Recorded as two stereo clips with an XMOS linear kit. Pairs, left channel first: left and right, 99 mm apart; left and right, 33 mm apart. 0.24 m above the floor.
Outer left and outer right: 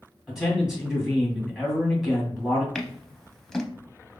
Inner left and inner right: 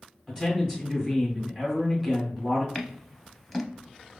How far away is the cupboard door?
I don't hear a cupboard door.